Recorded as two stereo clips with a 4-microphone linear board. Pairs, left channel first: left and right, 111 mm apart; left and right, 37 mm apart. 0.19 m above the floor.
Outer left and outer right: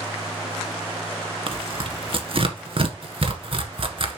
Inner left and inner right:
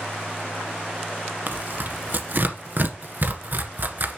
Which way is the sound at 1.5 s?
55° right (ahead or behind).